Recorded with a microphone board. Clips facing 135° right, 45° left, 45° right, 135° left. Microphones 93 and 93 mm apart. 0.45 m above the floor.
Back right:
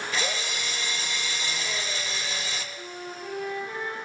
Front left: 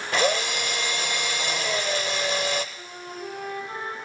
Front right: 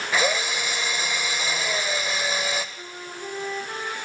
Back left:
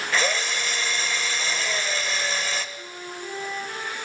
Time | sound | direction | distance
0.1 | a drill | 30° left | 0.7 m
2.8 | a flute | 15° left | 5 m